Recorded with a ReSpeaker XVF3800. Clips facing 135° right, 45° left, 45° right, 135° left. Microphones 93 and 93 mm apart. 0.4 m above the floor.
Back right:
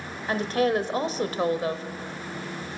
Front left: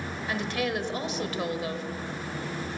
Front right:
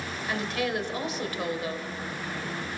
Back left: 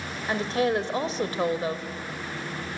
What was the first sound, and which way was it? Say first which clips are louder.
A woman speaking: back right 7 dB, back left 5 dB; 175° right.